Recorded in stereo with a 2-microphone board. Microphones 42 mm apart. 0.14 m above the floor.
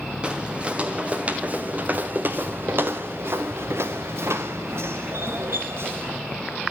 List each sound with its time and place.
0.2 s footsteps: 20° right (ahead or behind), 2.5 m; by 6.2 s 65° right (ahead or behind), 1.9 m